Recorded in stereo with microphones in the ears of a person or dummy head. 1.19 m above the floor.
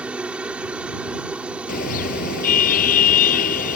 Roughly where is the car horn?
Left.